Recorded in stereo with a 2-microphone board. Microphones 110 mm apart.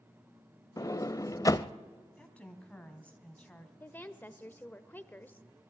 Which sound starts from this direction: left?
A sliding door, at 0.8 s.